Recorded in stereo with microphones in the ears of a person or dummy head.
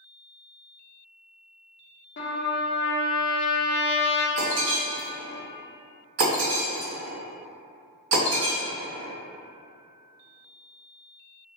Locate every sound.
2.2 s a trumpet: 55° left (ahead or behind), 0.6 m
4.4 s breaking glass: 60° right (ahead or behind), 1.8 m